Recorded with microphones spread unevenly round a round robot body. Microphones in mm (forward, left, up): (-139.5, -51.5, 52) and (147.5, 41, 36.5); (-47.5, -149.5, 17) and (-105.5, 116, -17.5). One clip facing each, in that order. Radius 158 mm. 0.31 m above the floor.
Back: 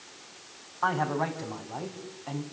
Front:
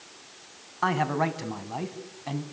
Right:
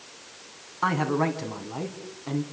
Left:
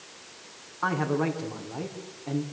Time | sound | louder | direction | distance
0.8 | a man speaking | front 3 dB, right 1 dB | 15° right | 3 m